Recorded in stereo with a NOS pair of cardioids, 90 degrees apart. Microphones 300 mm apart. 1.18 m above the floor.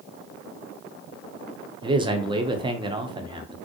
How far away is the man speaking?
About 0.5 m.